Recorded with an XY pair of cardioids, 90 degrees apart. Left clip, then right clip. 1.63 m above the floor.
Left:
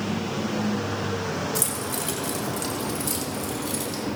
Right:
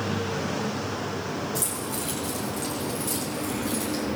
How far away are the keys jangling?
About 2.5 m.